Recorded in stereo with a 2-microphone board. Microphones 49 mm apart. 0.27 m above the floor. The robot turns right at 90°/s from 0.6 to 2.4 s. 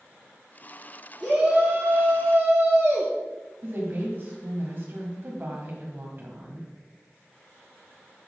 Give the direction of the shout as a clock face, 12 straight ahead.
5 o'clock.